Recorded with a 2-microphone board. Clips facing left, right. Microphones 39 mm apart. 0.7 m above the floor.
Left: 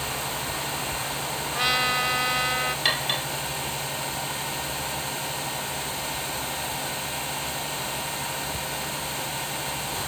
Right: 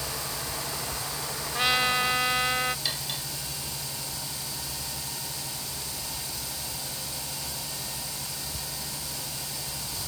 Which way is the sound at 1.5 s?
5° left (ahead or behind).